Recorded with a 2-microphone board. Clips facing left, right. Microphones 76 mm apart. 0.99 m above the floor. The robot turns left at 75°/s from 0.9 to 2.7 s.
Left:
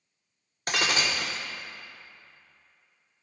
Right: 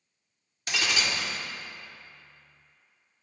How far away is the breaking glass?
About 0.7 m.